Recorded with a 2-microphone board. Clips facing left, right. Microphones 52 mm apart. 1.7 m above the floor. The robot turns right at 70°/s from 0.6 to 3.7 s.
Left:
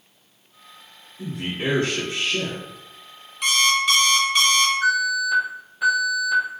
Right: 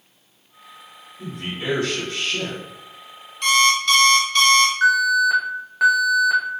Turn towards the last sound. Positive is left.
turn(degrees=-80)